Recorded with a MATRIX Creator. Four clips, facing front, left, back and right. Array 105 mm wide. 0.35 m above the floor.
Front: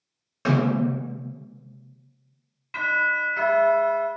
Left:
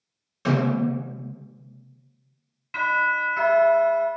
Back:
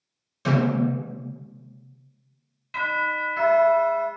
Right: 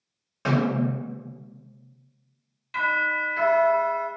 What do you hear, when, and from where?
0.5 s a snare drum: 30° right, 1.2 m
2.7 s a doorbell: 65° left, 1.8 m